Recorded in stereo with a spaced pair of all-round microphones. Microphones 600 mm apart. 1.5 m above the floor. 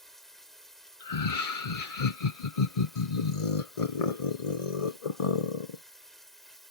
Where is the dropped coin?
I don't hear a dropped coin.